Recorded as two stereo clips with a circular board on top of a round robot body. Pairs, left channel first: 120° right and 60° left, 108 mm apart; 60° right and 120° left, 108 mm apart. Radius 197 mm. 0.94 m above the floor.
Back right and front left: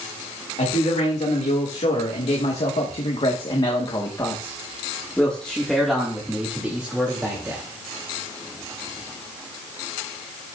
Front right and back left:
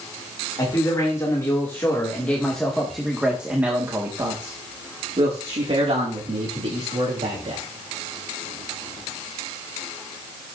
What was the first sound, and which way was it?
A man speaking, 115° right.